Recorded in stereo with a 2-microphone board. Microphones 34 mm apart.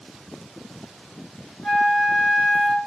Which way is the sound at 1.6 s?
15° left (ahead or behind).